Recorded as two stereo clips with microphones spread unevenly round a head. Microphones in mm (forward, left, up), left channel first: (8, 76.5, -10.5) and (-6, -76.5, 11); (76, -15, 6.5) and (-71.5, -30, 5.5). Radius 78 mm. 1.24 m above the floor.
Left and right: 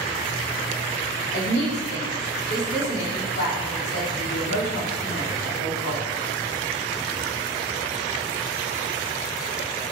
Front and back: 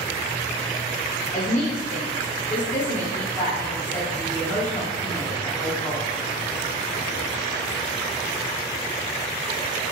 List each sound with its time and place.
1.3 s a woman speaking: 80° left, 3.5 m